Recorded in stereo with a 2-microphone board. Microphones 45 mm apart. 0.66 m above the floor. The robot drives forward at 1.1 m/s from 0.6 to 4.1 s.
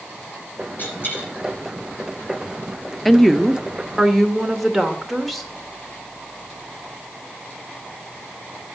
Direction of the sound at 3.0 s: Centre (ahead or behind).